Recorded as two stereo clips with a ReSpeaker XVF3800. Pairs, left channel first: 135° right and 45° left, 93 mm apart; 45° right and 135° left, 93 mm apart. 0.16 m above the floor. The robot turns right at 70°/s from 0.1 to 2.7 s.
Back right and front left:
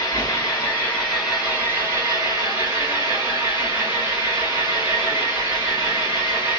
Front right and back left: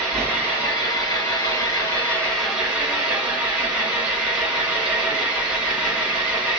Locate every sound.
0.0 s an engine running: 120° right, 1.8 m; by 6.6 s 65° left, 1.8 m